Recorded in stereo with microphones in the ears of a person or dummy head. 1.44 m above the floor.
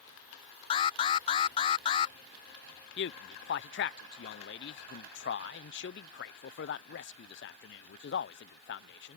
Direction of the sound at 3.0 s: 55° left (ahead or behind).